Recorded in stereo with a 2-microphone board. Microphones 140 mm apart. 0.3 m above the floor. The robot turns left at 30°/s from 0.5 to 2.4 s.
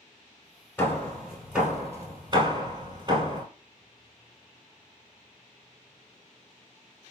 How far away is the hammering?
About 1.3 m.